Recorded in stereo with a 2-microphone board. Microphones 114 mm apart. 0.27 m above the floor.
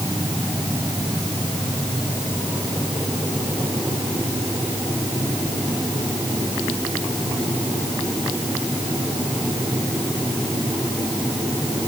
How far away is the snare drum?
No snare drum in this recording.